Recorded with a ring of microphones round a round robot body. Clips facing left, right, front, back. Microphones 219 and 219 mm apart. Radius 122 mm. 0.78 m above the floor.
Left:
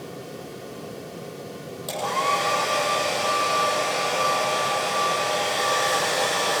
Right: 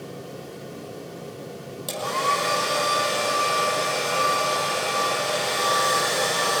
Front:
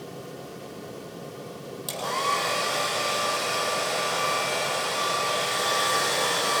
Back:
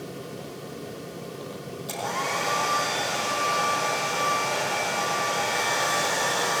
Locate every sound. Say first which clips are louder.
1.9 s a hair dryer: left 1 dB, front 1 dB; 30° right, 6.5 m